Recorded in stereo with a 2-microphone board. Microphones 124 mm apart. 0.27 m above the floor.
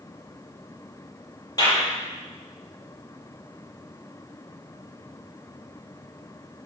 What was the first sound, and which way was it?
A clap, 30° left (ahead or behind).